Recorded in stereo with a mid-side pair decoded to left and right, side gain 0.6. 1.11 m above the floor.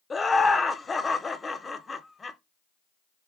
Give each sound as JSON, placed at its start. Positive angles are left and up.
{"t": 0.1, "sound": "laughter", "azimuth_deg": 25, "distance_m": 0.5}